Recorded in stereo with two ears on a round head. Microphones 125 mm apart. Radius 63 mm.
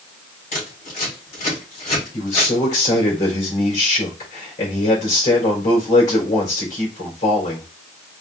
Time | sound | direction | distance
0.5 | scissors | 50° left (ahead or behind) | 3 m
2.1 | a man speaking | 55° left (ahead or behind) | 2.5 m